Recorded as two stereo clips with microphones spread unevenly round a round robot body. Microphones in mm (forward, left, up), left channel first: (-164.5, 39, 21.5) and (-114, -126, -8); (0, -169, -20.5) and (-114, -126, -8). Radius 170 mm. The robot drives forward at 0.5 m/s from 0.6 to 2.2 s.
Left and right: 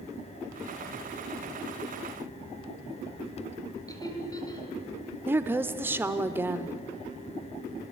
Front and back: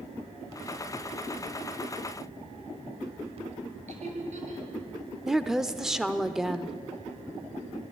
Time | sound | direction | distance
3.9 | laughter | 175° left | 8.5 m
5.3 | a woman speaking | 105° right | 0.8 m